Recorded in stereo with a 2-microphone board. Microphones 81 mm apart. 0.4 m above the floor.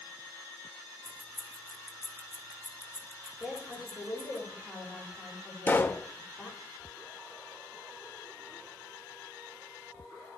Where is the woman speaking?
5° right (ahead or behind), 8 m.